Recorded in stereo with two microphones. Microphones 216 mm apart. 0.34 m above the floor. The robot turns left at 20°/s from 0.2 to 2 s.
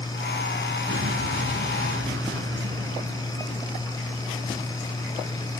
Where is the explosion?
70° right (ahead or behind), 1.9 m; by 4.4 s 75° right (ahead or behind), 1.9 m.